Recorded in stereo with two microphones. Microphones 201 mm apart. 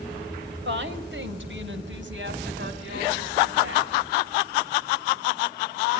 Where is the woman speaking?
70° right (ahead or behind), 3 m; by 3.9 s 80° right, 6 m.